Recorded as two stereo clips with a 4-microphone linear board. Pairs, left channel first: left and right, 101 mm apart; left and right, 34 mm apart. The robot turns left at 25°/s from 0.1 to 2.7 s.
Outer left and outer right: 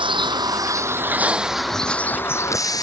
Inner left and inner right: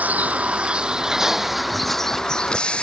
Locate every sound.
0.0 s a vehicle: 55° right (ahead or behind); by 2.8 s 40° left (ahead or behind)